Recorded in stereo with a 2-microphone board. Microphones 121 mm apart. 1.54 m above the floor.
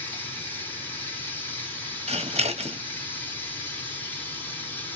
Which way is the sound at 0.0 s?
15° left (ahead or behind).